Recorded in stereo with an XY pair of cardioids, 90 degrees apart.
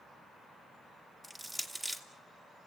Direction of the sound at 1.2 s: 25° right.